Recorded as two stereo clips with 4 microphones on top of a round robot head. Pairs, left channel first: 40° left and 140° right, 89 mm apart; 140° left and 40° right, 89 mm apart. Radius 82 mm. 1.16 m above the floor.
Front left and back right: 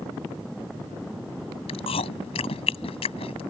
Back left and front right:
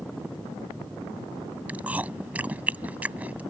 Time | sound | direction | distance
1.7 | chewing | 35° left | ?